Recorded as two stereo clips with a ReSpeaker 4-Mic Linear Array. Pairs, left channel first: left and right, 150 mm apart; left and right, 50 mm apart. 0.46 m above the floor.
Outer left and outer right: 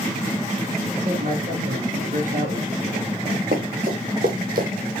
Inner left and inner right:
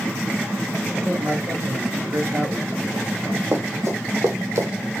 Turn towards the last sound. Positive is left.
turn(degrees=-75)  # may be behind; listen again after turning